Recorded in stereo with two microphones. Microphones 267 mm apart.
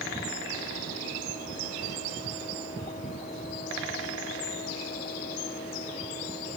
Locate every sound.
Only background noise.